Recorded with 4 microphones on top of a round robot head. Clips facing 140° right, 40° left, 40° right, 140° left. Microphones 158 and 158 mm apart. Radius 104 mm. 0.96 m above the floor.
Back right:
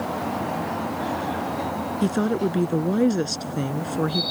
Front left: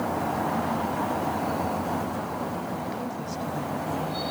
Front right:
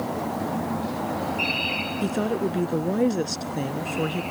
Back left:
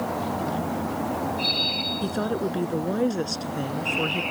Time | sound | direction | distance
2.0 | a woman speaking | 125° right | ?